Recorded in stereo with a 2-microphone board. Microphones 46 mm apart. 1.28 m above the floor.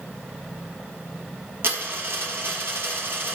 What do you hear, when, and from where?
1.6 s a dropped coin: 55° right (ahead or behind), 3 m